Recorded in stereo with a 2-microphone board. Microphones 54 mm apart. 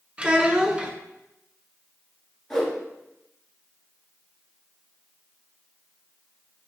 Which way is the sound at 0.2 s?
20° right (ahead or behind).